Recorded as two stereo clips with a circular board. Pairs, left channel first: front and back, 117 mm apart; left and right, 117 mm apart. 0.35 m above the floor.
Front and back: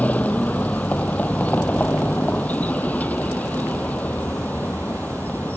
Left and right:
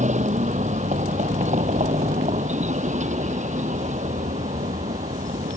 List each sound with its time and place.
0.0 s a vehicle: 80° right